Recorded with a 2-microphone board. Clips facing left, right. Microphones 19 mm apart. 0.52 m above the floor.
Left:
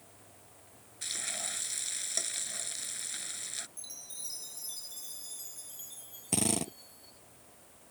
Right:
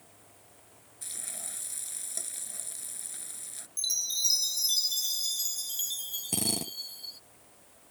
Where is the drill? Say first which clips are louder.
Left 1 dB; 20° left (ahead or behind).